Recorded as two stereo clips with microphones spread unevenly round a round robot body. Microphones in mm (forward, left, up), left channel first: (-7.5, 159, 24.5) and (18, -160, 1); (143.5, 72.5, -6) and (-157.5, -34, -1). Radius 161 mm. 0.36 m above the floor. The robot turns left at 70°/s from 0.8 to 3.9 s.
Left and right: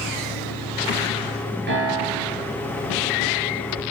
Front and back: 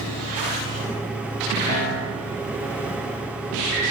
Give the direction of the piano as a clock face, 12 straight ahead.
1 o'clock.